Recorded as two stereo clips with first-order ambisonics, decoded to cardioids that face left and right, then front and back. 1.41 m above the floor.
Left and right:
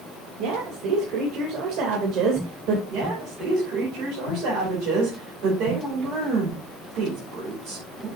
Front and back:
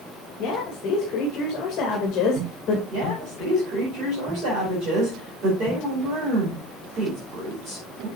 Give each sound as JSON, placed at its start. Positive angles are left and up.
{"t": 0.4, "sound": "a woman speaking", "azimuth_deg": -55, "distance_m": 2.0}
{"t": 2.9, "sound": "a woman speaking", "azimuth_deg": -125, "distance_m": 4.5}